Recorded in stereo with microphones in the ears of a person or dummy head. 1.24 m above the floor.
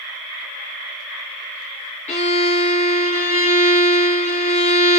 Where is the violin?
30° left (ahead or behind), 0.9 m.